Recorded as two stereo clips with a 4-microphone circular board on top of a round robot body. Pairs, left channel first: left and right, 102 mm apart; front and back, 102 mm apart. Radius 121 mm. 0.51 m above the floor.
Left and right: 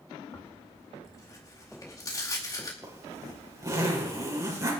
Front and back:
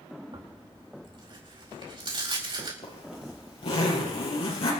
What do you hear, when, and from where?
0.3 s tearing paper: 145° left, 4.5 m
2.8 s a zipper: 30° right, 5 m